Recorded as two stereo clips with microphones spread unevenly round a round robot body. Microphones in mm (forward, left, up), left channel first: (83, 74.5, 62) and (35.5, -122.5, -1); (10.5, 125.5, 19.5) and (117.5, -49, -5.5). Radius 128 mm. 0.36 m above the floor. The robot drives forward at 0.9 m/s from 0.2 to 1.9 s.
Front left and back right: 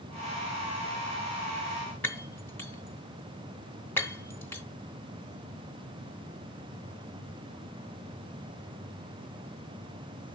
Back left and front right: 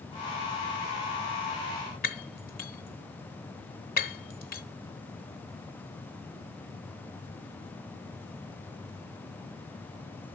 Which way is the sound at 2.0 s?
170° left.